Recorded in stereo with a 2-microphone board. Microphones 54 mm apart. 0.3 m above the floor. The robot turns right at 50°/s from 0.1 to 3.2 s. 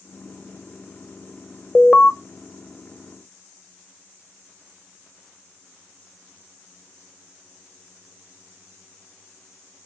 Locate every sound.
1.8 s an alarm: 20° left (ahead or behind), 0.6 m; by 2.1 s 10° left (ahead or behind), 0.6 m